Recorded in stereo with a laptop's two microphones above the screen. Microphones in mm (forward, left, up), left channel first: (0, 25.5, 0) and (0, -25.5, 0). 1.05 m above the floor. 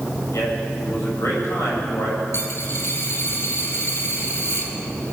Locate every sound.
0.3 s a man speaking: 65° left (ahead or behind), 6.5 m
2.3 s a dropped coin: 55° left (ahead or behind), 1.9 m